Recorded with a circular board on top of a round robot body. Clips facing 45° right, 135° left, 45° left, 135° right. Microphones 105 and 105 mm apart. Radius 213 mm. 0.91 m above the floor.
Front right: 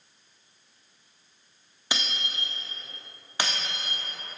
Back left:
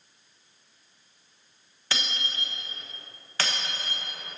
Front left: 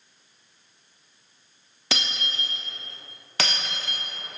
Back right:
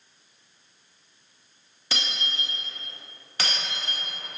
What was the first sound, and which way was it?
Breaking glass, 30° left.